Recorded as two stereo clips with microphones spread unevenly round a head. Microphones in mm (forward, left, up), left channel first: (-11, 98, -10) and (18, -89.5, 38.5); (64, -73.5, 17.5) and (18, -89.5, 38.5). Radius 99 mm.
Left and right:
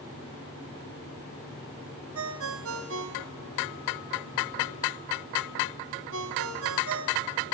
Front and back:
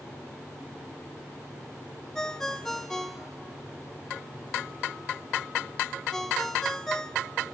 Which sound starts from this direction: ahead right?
A ringtone, at 2.1 s.